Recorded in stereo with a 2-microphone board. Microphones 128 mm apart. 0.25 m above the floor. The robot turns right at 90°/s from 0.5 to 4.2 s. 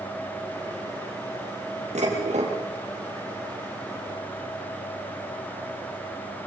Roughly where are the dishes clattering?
Right.